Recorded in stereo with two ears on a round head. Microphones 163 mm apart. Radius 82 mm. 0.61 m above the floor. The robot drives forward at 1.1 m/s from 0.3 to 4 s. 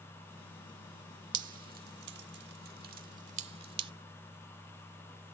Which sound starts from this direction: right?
Dripping, at 1.3 s.